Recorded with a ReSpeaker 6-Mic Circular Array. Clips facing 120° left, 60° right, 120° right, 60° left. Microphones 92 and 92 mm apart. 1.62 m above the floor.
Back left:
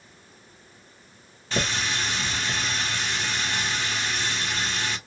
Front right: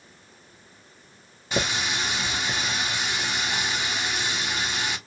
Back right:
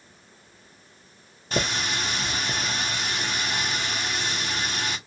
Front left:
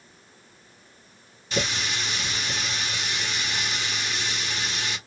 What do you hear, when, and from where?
1.5 s a running tap: 130° right, 0.8 m